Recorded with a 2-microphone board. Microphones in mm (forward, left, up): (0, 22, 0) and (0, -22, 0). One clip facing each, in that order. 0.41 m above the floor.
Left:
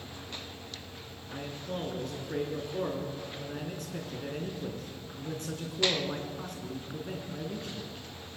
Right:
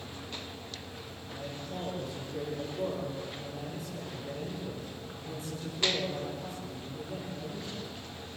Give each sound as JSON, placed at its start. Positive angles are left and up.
{"t": 1.3, "sound": "a man speaking", "side_deg": 60, "distance_m": 6.0}